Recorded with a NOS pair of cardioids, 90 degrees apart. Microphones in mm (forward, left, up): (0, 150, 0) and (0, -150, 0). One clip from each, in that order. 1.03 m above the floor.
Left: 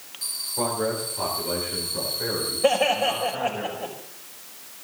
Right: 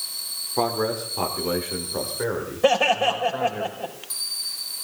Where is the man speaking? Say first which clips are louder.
Right 3 dB; 65° right, 4 m; by 3.6 s 80° right, 5 m.